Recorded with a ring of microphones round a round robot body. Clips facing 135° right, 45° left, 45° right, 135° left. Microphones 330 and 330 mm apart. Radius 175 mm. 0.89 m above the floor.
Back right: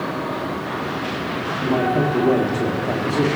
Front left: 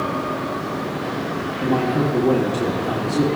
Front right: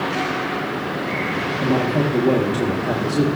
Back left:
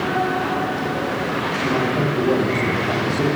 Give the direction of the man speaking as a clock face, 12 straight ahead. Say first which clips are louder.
Even, front right 2 dB; 12 o'clock.